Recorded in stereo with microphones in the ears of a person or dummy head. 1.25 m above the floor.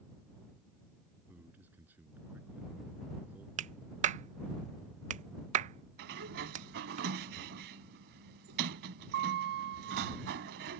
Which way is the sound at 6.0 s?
60° right (ahead or behind).